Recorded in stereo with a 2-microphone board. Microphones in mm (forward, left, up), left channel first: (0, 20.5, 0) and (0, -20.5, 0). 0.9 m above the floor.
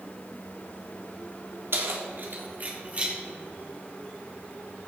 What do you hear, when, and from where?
1.7 s keys jangling: 70° right (ahead or behind), 1.6 m; by 3.1 s 30° right (ahead or behind), 1.8 m